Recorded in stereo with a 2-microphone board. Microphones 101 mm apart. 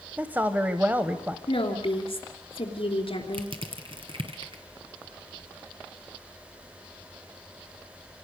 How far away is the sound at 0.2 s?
About 1.0 m.